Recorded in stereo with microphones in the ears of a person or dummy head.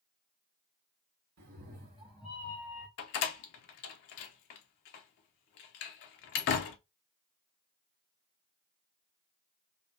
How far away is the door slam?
About 0.6 m.